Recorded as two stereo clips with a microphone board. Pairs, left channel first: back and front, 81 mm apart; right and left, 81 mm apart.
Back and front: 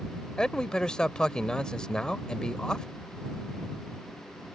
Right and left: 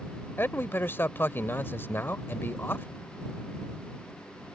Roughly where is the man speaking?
Right.